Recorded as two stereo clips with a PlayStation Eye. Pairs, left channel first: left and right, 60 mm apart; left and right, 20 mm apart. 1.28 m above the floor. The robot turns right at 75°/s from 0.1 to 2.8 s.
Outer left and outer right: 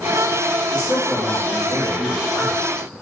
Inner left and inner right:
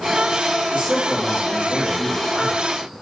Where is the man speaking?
60° right, 2.5 m; by 2.9 s 100° left, 2.5 m.